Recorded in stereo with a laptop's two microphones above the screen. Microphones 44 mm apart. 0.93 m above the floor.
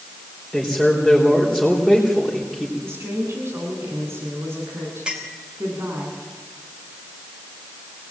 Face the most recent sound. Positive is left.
turn(degrees=-25)  # may be behind; listen again after turning